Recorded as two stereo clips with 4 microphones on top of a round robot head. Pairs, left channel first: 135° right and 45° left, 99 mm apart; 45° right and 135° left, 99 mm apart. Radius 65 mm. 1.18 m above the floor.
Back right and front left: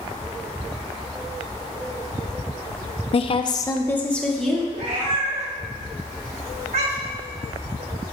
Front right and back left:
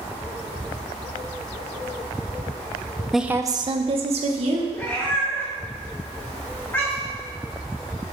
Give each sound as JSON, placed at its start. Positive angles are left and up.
{"t": 3.1, "sound": "a woman speaking", "azimuth_deg": -140, "distance_m": 0.7}
{"t": 4.7, "sound": "a cat meowing", "azimuth_deg": 25, "distance_m": 1.6}